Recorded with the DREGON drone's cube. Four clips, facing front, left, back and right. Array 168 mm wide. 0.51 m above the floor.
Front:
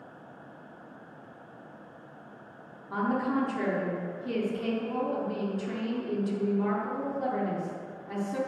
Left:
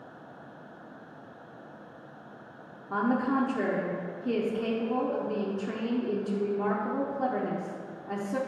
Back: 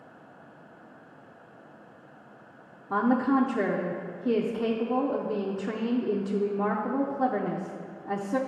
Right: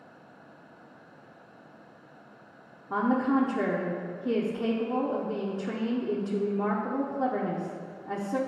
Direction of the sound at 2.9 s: 170° right.